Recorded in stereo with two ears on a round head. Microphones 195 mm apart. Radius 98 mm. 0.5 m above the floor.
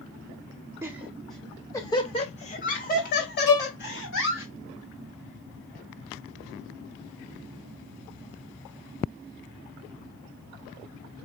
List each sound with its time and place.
0.8 s laughter: 10° right (ahead or behind), 1.1 m; by 4.5 s 60° left (ahead or behind), 1.9 m
3.5 s a violin: 80° left, 1.1 m